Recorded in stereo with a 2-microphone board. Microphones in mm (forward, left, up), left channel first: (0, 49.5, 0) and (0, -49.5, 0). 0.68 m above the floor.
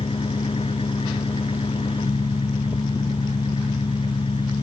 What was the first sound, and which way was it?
An engine running, 80° left.